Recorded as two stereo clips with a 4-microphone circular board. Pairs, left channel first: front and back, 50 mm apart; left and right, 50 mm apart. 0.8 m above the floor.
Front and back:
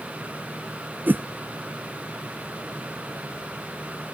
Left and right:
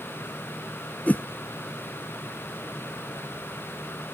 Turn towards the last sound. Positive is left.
turn(degrees=140)